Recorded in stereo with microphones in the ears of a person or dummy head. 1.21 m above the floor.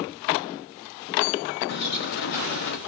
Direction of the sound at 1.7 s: 60° left (ahead or behind).